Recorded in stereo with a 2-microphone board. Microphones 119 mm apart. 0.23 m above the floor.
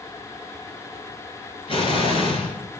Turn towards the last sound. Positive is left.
turn(degrees=45)  # may be behind; listen again after turning